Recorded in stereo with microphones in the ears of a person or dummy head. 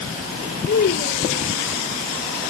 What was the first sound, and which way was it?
A child speaking, 55° left (ahead or behind).